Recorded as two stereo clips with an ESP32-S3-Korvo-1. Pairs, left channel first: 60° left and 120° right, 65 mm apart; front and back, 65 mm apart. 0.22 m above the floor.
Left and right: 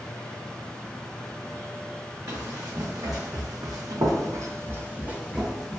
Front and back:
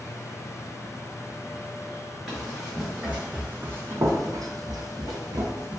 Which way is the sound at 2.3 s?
95° right.